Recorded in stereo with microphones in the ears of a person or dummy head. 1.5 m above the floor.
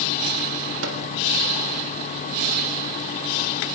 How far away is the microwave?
About 3.5 m.